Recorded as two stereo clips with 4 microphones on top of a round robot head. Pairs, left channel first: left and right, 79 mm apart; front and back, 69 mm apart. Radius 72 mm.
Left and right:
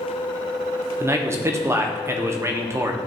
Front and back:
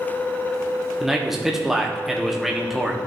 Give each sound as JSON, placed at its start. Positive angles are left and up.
{"t": 1.0, "sound": "a man speaking", "azimuth_deg": -100, "distance_m": 1.0}